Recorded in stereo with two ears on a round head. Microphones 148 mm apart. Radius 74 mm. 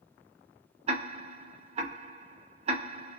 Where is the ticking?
35° right (ahead or behind), 0.8 m.